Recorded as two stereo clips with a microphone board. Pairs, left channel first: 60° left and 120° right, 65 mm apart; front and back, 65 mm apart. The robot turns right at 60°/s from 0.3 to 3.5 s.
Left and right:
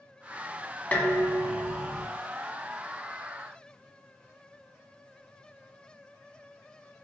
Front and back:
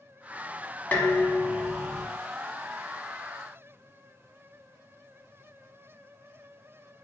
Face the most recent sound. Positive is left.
turn(degrees=180)